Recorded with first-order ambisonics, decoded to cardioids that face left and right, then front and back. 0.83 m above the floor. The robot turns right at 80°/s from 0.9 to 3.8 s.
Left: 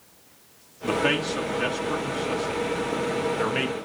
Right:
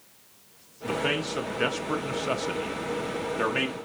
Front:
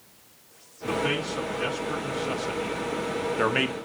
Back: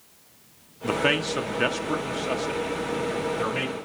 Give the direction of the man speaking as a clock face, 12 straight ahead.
7 o'clock.